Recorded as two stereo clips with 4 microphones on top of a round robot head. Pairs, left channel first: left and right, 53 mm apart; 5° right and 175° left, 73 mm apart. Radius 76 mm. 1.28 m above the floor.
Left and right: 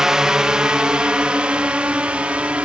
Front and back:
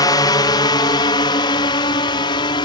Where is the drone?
10° right; by 2.7 s 20° right.